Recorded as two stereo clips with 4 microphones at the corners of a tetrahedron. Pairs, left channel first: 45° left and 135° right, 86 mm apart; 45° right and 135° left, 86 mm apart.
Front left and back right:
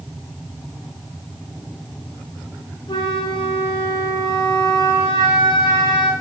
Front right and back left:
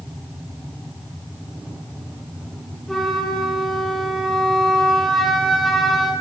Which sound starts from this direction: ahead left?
A flute, at 2.9 s.